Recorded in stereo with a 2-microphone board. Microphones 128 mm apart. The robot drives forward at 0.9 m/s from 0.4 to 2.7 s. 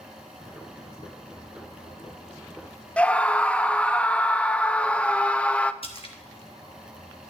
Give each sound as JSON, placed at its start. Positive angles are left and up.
{"t": 3.0, "sound": "a scream", "side_deg": 10, "distance_m": 0.5}
{"t": 5.8, "sound": "a splash", "side_deg": 45, "distance_m": 1.2}